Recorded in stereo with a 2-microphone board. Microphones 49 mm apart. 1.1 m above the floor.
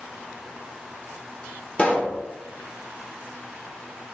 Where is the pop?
30° left (ahead or behind), 1.4 m.